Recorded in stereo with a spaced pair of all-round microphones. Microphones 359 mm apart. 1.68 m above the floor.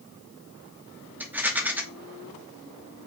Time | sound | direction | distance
1.2 | a rattle | 5° right (ahead or behind) | 0.6 m